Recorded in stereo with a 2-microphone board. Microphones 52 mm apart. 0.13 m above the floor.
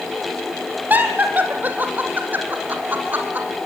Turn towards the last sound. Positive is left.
turn(degrees=-35)  # may be behind; listen again after turning